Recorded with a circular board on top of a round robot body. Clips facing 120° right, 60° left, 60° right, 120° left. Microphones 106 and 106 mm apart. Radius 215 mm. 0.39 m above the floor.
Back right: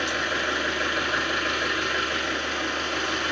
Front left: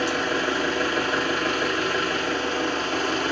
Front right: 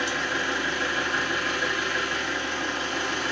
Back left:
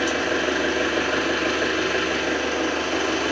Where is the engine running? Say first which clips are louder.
Front left 4 dB, back left 6 dB; 105° left, 1.1 m.